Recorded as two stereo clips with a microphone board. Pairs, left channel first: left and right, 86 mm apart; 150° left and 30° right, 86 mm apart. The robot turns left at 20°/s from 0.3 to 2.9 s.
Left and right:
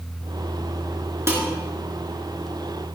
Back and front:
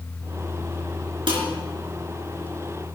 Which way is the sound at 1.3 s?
35° right.